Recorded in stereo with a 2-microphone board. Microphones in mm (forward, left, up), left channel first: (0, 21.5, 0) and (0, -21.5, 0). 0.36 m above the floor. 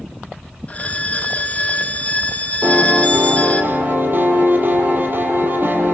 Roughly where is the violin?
Left.